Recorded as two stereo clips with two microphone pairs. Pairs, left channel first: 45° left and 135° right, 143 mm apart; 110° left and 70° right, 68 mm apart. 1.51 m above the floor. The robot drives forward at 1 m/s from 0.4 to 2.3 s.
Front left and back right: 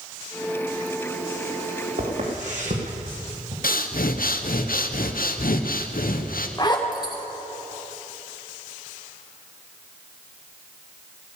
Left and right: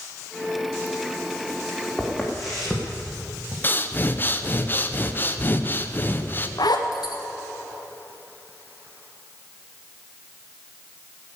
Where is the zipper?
105° left, 1.8 m.